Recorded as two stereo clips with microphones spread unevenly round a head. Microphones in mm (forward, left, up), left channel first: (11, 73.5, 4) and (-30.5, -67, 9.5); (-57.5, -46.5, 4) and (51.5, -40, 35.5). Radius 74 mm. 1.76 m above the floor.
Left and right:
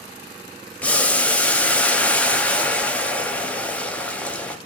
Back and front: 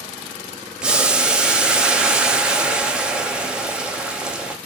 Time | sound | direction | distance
0.8 | boiling | straight ahead | 0.6 m